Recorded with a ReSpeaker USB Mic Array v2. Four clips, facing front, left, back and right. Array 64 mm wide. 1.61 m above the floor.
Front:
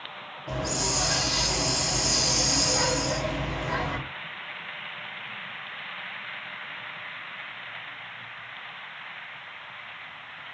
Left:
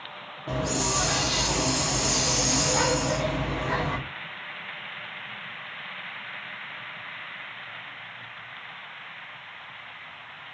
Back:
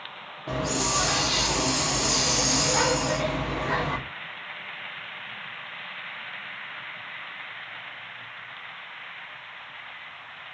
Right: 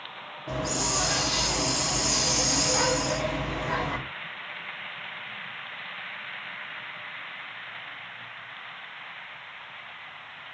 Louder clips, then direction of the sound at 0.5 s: Left 2 dB, back 3 dB; 165° left.